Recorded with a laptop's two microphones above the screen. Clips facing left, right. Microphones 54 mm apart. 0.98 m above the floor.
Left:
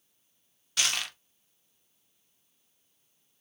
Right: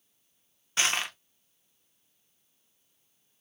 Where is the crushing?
30° right (ahead or behind), 0.5 m.